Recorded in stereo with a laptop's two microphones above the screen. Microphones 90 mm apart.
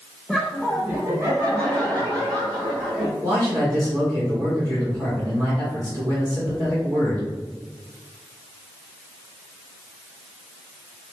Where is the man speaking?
45° right (ahead or behind), 1.5 m.